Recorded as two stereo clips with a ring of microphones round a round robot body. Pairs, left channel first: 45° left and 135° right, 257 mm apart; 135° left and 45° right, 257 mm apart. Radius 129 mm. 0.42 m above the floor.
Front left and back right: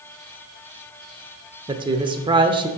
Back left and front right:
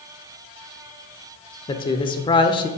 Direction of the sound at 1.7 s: Straight behind.